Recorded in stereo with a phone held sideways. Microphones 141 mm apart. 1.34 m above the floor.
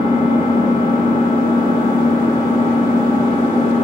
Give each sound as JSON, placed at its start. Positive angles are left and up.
{"t": 0.0, "sound": "an engine running", "side_deg": 35, "distance_m": 2.5}